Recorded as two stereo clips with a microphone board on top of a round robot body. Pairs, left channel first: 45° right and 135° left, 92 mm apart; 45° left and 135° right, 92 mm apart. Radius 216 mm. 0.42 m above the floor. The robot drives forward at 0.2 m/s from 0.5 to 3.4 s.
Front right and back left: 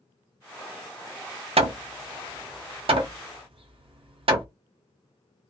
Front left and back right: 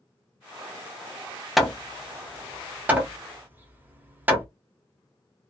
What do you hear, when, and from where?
1.6 s hammering: 135° left, 0.6 m; by 4.5 s 155° left, 0.9 m